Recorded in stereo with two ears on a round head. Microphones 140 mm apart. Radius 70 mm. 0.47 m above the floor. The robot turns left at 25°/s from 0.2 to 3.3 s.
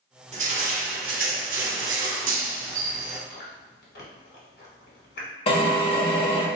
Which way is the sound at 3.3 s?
70° left (ahead or behind).